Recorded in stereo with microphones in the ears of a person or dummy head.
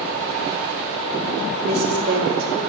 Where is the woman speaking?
30° right (ahead or behind), 1.8 m.